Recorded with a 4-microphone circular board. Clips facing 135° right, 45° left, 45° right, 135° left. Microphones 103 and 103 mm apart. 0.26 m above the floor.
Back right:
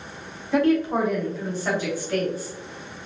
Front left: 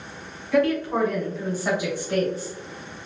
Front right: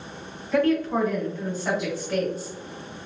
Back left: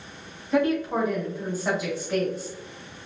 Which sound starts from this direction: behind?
A woman speaking, at 0.5 s.